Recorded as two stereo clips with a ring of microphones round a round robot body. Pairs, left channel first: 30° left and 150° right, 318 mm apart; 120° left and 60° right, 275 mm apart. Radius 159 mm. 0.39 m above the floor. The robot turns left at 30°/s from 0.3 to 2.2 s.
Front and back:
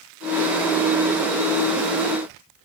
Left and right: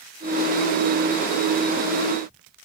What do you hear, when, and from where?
Only background noise.